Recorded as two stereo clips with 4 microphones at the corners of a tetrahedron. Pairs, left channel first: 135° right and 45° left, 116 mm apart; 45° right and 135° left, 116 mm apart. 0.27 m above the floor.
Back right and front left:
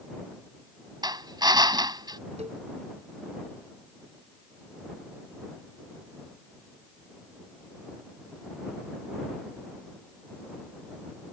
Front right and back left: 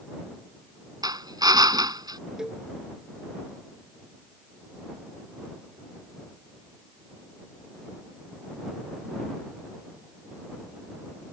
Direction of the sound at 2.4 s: 50° left.